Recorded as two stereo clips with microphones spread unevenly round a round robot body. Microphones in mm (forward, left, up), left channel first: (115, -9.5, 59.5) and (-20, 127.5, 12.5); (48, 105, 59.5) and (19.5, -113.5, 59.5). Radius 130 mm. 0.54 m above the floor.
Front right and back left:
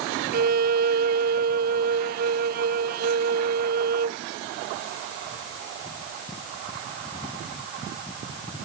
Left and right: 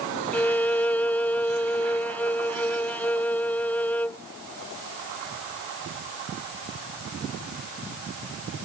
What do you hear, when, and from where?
0.3 s a violin: 165° left